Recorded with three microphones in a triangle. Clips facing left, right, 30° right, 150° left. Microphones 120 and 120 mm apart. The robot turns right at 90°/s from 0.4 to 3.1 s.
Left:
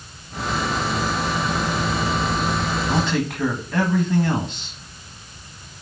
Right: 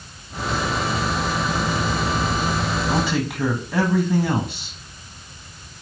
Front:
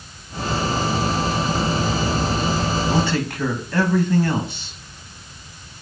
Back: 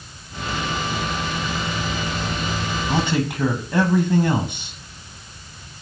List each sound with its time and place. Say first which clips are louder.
2.9 s a man speaking: left 1 dB, front 1 dB; straight behind, 1.3 m; by 4.8 s 160° right, 1.3 m